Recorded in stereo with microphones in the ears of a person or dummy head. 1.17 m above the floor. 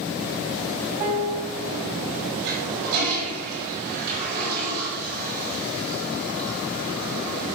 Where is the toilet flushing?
45° right (ahead or behind), 4.5 m.